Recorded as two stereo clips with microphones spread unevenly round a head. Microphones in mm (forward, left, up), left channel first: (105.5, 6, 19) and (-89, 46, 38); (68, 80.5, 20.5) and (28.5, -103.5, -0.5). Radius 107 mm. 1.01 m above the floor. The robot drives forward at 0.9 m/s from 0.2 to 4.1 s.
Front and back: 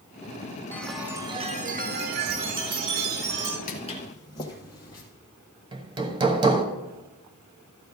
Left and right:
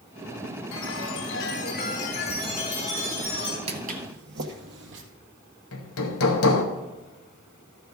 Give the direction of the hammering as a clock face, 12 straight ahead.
9 o'clock.